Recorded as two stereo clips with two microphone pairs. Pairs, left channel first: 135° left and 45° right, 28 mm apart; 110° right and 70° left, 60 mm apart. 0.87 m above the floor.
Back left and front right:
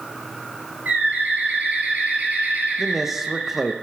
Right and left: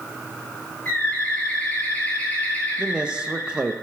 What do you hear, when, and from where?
0.8 s a bird: 45° right, 3.5 m
2.8 s a man speaking: 20° left, 0.6 m